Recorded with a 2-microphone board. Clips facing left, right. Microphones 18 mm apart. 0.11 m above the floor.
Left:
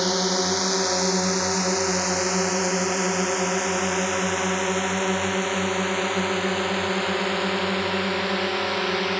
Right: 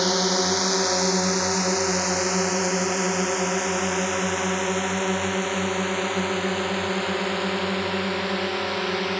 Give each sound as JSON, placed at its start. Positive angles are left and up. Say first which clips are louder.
{"t": 0.0, "sound": "a drone", "louder": "right 1 dB", "side_deg": -5}